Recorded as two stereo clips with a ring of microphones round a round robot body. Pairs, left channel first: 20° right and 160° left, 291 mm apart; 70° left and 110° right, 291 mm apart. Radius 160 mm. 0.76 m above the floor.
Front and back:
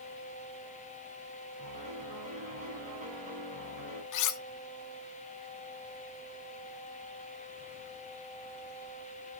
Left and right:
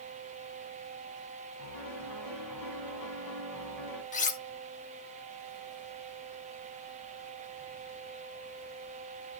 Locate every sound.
1.6 s a piano: 90° left, 5.5 m
4.1 s cutlery clinking: straight ahead, 0.9 m